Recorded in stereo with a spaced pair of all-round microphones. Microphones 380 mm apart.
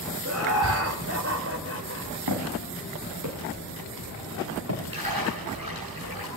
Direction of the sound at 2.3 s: 65° right (ahead or behind).